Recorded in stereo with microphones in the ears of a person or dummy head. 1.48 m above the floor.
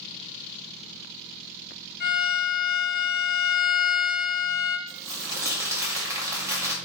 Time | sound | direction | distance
2.0 | a violin | 40° left (ahead or behind) | 1.0 m
4.9 | crumpling | 15° right (ahead or behind) | 0.7 m